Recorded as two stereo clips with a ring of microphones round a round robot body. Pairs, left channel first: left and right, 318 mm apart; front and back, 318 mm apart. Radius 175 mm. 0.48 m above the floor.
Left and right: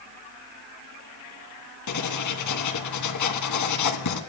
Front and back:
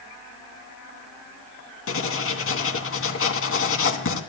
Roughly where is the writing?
Ahead left.